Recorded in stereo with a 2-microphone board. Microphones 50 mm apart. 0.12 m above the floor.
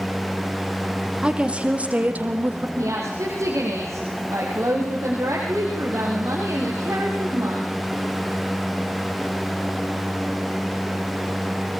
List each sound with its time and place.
1.2 s a woman speaking: 20° right (ahead or behind), 4 m; by 2.7 s 40° right (ahead or behind), 4 m
2.8 s a woman speaking: 75° right (ahead or behind), 8 m